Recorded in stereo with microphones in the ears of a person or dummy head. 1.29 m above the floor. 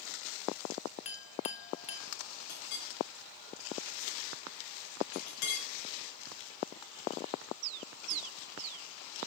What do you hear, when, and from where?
1.1 s a clink: 35° left (ahead or behind), 0.9 m
2.5 s a clink: 70° left (ahead or behind), 6 m